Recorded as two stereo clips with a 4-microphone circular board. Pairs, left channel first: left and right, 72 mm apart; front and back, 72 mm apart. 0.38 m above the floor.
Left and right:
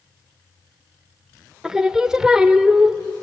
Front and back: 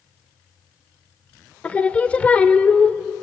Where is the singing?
25° right, 0.6 m.